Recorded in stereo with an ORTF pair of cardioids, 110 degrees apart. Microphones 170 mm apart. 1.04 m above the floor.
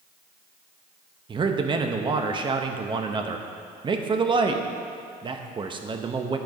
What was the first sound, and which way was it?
A man speaking, 30° right.